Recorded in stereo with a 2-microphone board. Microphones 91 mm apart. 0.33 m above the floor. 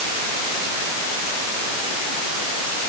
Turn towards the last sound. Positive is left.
No sound to turn to.